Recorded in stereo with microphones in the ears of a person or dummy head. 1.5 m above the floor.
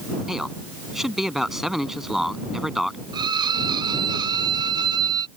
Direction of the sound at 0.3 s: Centre (ahead or behind).